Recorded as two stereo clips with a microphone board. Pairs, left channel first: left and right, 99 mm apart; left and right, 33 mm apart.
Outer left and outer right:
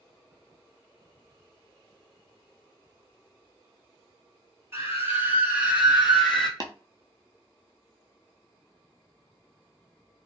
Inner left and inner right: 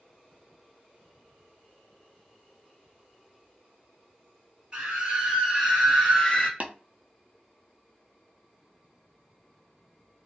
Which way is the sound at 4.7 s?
30° right (ahead or behind).